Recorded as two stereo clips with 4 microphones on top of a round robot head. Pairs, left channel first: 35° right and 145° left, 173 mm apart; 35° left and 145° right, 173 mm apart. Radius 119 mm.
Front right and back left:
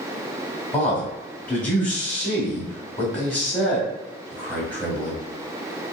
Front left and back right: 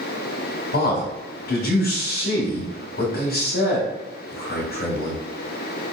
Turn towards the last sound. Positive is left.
turn(degrees=45)